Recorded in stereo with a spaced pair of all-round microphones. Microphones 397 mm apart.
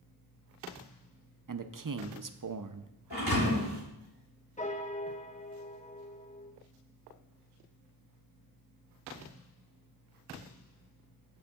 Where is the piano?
20° left (ahead or behind), 0.6 m.